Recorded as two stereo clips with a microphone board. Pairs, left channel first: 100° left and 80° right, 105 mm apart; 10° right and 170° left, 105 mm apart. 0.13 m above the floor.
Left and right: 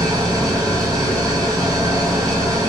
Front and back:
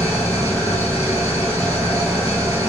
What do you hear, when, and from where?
0.0 s an engine running: 130° right, 1.4 m